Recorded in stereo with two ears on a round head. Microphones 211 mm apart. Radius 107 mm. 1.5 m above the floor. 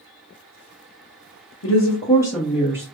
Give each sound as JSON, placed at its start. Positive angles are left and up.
{"t": 1.6, "sound": "a woman speaking", "side_deg": 60, "distance_m": 0.6}